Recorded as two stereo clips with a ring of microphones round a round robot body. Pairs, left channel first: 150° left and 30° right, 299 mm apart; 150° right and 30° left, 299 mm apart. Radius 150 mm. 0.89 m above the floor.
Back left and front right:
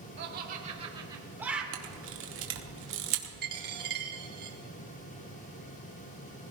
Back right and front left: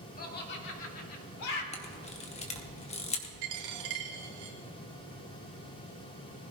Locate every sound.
0.2 s laughter: 85° right, 2 m; by 1.6 s 120° right, 2.5 m
1.7 s a camera shutter: 80° right, 1.5 m
3.4 s a dropped coin: 30° left, 2.5 m